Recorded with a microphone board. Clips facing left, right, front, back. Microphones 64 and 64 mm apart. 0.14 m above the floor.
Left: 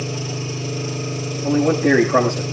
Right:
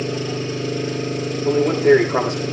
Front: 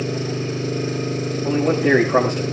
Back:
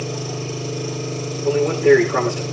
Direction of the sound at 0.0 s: 40° right.